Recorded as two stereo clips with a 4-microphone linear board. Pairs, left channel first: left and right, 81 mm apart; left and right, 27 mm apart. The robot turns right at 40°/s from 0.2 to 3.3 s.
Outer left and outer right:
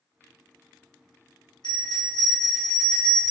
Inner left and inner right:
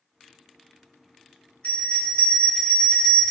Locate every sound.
1.6 s a bell: 105° left, 0.8 m; by 3.3 s 170° left, 0.8 m